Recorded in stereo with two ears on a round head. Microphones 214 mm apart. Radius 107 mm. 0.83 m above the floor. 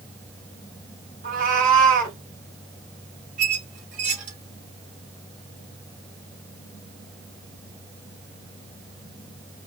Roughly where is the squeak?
Right.